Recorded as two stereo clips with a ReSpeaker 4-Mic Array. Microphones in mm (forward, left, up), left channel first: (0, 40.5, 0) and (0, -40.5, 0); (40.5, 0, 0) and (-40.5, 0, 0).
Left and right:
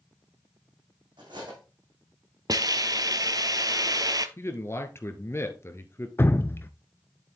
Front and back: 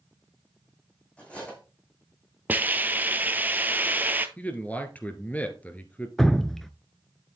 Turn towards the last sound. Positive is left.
turn(degrees=80)